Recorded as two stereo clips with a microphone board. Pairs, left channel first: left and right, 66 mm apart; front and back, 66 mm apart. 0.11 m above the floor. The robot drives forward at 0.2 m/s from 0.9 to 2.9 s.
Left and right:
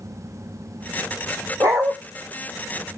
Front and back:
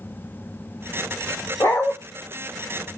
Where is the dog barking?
55° right, 1.2 m; by 1.9 s 60° right, 1.2 m.